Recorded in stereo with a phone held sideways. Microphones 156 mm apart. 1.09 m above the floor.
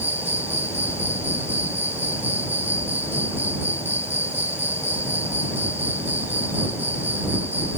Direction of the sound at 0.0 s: 10° right (ahead or behind).